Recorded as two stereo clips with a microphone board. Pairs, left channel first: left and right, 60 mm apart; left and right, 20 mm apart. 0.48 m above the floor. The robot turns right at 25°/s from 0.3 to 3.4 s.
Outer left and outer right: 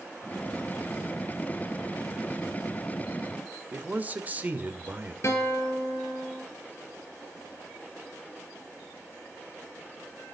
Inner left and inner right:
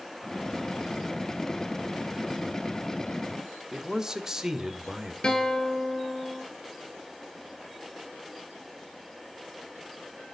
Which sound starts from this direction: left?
A guitar, at 5.2 s.